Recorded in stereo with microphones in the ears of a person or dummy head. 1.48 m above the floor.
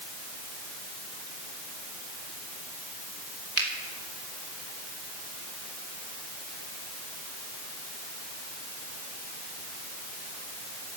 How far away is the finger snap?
About 3.5 m.